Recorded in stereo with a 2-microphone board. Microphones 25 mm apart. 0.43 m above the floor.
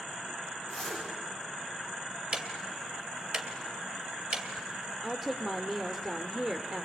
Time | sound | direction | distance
0.7 | a zipper | 5° left (ahead or behind) | 6 m
2.3 | ticking | 40° right (ahead or behind) | 2.5 m
5.0 | a woman speaking | 15° right (ahead or behind) | 0.8 m